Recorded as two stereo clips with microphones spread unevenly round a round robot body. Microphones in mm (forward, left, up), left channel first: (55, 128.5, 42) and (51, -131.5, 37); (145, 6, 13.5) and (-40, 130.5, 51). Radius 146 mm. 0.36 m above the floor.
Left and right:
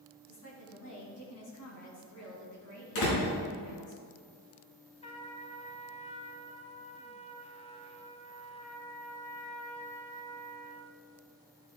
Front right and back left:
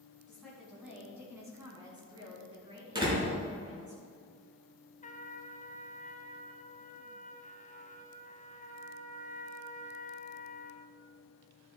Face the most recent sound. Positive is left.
turn(degrees=20)